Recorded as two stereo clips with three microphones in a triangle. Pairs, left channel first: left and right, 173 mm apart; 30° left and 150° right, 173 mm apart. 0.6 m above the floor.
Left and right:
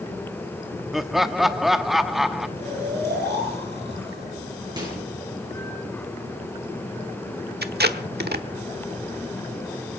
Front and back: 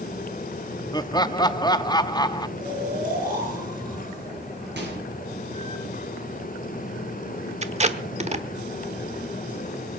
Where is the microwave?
155° right, 7 m.